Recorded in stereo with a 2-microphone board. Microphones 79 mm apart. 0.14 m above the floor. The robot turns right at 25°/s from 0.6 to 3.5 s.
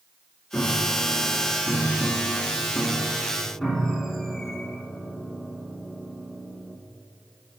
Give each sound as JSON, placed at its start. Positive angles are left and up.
{"t": 0.5, "sound": "a piano", "side_deg": 20, "distance_m": 1.4}